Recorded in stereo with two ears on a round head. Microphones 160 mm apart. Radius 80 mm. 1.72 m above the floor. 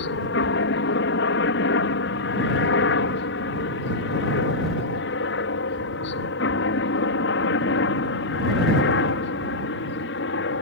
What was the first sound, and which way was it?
A helicopter, 65° left (ahead or behind).